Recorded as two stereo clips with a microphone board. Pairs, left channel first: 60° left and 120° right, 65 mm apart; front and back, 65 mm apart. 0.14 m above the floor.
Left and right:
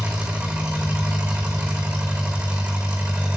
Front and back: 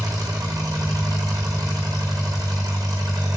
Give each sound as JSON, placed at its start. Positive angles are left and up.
{"t": 0.0, "sound": "an engine running", "azimuth_deg": 170, "distance_m": 2.0}